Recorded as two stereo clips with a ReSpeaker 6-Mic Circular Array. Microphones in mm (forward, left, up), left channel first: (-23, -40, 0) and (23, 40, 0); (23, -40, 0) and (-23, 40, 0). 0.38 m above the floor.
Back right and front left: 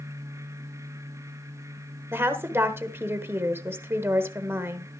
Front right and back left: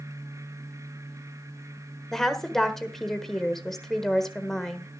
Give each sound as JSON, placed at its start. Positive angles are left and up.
{"t": 2.1, "sound": "a woman speaking", "azimuth_deg": 25, "distance_m": 1.1}